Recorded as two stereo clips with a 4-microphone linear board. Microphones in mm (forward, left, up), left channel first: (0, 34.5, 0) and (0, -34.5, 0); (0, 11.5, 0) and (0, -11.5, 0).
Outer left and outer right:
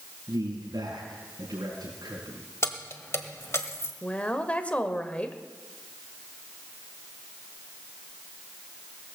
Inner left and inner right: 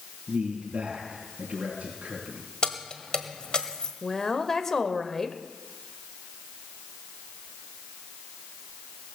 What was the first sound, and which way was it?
A man speaking, 75° right (ahead or behind).